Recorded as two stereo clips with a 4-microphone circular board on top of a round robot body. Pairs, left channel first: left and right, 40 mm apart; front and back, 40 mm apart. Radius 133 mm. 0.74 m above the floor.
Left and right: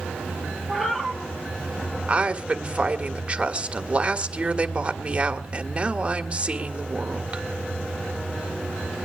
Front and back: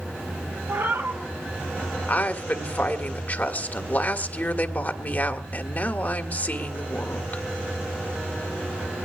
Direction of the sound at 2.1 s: 35° right.